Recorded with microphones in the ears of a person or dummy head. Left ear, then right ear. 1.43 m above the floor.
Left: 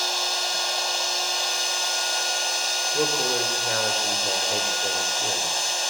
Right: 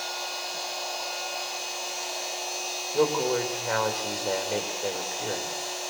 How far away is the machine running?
About 5 m.